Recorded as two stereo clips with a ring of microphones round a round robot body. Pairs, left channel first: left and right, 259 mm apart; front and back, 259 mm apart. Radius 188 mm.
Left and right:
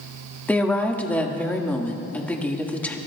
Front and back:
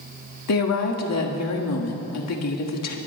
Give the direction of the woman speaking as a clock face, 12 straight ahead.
12 o'clock.